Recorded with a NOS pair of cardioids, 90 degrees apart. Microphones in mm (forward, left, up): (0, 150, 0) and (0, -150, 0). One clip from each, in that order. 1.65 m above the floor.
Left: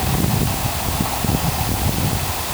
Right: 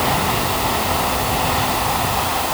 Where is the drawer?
No drawer in this recording.